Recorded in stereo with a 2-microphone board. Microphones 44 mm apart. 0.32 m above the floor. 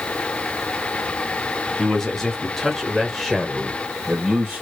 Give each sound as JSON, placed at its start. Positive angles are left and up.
{"t": 1.8, "sound": "a man speaking", "side_deg": 15, "distance_m": 1.3}